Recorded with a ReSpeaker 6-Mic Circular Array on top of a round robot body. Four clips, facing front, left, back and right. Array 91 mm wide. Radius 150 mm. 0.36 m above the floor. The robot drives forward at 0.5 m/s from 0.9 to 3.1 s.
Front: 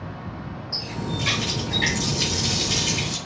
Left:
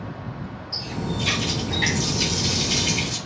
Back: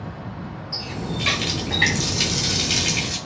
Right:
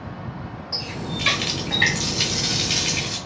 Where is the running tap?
100° right, 1.0 m; by 3.2 s 150° right, 1.6 m.